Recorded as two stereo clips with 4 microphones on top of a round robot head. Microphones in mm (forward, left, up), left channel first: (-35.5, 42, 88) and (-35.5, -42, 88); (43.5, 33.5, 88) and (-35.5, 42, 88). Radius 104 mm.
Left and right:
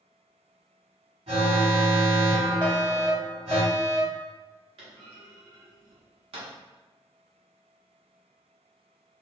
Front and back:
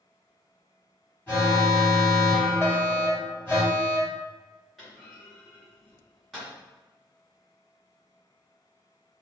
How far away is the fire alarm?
About 0.9 m.